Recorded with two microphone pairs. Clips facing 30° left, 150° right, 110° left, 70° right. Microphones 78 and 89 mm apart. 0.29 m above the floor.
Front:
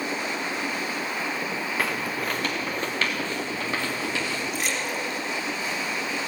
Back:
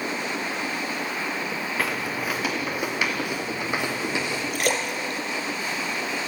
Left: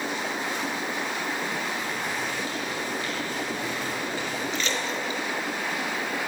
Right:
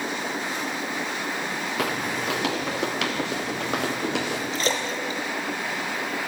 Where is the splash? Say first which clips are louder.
Back 3 dB, right 2 dB; 120° right, 3.5 m.